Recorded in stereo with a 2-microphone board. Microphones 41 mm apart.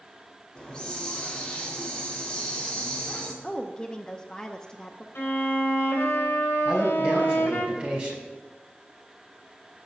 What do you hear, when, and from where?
0.6 s a hiss: 20° left (ahead or behind), 1.8 m
3.4 s a woman speaking: 20° left (ahead or behind), 0.6 m
5.2 s a violin: 75° left (ahead or behind), 1.6 m
6.7 s a man speaking: 25° right (ahead or behind), 3 m